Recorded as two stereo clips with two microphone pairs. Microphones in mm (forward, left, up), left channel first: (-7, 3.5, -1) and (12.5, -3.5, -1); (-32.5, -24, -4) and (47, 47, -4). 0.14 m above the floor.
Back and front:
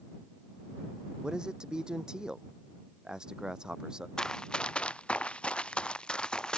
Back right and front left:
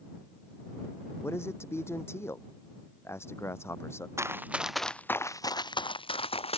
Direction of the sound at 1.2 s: 75° right.